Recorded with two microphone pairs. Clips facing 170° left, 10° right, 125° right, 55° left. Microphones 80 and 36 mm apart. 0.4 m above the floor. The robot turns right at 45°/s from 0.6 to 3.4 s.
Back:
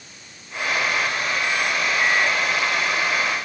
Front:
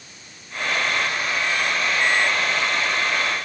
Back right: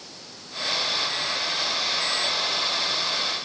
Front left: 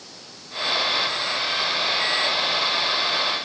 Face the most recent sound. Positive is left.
No sound to turn to.